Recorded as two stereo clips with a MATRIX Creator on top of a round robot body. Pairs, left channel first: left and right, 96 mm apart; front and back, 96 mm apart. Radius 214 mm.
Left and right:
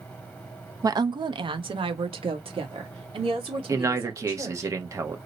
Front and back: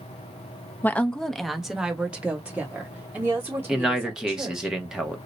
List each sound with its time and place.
0.8 s a woman speaking: 60° right, 0.7 m; by 4.7 s 115° right, 2.5 m
3.7 s a man speaking: 100° right, 1.1 m